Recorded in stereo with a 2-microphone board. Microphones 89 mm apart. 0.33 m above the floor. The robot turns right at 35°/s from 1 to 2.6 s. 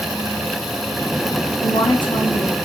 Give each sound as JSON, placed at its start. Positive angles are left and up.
{"t": 1.6, "sound": "a woman speaking", "azimuth_deg": 85, "distance_m": 3.0}